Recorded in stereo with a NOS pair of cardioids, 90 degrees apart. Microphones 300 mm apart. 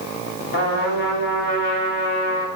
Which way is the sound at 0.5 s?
40° left.